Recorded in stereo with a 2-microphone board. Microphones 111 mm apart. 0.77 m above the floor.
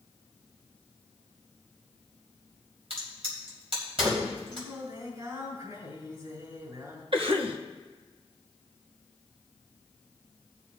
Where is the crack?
65° right (ahead or behind), 3 m.